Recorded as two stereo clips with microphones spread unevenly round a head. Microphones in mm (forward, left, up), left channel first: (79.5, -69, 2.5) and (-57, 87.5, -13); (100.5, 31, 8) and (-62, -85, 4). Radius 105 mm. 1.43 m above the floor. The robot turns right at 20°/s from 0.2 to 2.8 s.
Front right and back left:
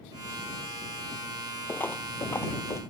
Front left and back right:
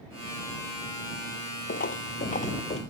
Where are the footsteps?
25° left; by 2.8 s 10° left.